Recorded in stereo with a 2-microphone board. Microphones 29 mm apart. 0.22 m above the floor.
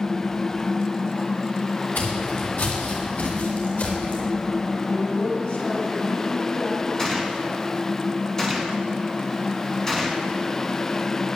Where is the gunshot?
15° left (ahead or behind), 2.5 m.